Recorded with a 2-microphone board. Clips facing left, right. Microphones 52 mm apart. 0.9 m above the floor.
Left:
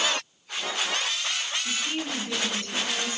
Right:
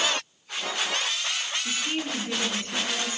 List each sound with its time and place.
1.6 s a woman speaking: 25° right (ahead or behind), 9.5 m; by 3.2 s 30° right (ahead or behind), 9.5 m